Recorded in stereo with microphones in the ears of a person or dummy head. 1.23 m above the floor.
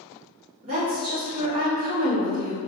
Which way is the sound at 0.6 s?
40° right (ahead or behind).